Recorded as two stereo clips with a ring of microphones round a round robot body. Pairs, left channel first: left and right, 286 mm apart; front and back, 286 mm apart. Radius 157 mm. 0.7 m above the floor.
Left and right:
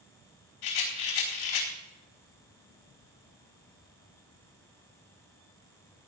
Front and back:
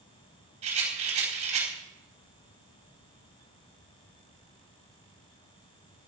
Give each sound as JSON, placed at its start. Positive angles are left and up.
{"t": 0.6, "sound": "a rattle", "azimuth_deg": 110, "distance_m": 4.0}